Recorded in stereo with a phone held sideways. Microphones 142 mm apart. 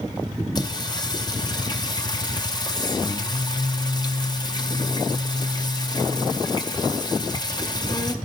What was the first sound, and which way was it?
Singing, 30° left (ahead or behind).